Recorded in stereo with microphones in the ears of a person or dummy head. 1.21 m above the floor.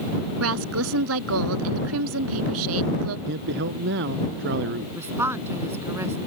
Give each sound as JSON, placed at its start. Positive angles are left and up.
{"t": 0.4, "sound": "a woman speaking", "side_deg": -85}
{"t": 3.3, "sound": "a man speaking", "side_deg": -65}
{"t": 5.0, "sound": "a woman speaking", "side_deg": -15}